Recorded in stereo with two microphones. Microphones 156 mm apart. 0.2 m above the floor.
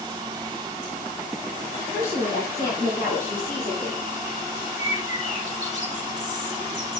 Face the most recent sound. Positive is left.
turn(degrees=40)  # may be behind; listen again after turning